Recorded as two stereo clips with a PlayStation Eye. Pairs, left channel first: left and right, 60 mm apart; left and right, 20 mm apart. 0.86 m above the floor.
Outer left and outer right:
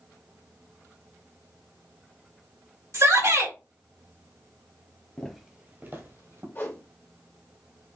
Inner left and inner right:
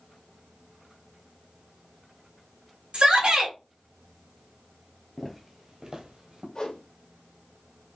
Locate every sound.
2.9 s a shout: 65° right (ahead or behind), 2.5 m
5.2 s footsteps: 15° left (ahead or behind), 1.1 m; by 6.5 s 60° right (ahead or behind), 1.9 m
6.5 s a whoosh: 40° left (ahead or behind), 1.6 m